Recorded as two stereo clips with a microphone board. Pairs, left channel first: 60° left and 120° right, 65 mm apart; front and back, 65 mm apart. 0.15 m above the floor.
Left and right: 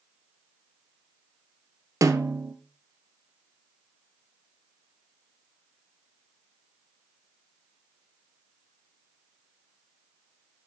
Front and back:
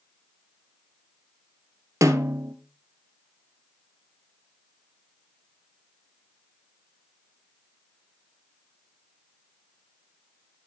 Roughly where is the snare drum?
Behind right.